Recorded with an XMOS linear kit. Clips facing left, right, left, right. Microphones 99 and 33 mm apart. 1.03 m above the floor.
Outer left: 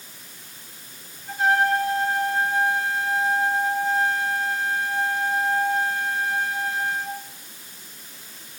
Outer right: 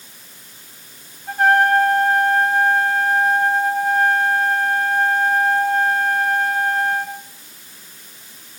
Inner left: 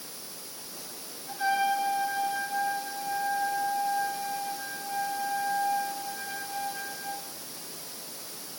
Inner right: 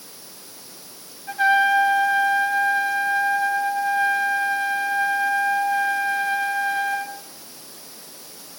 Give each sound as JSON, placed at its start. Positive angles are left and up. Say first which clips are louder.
{"t": 1.3, "sound": "a trumpet", "louder": "outer right 6 dB, inner right 9 dB", "side_deg": -60, "distance_m": 3.5}